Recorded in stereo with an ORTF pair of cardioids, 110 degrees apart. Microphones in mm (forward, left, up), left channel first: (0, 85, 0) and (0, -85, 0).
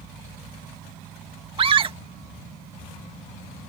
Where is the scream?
30° right.